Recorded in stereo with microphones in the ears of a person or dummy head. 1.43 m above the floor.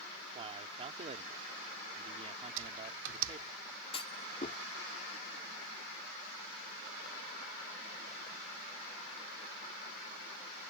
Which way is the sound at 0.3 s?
30° right (ahead or behind).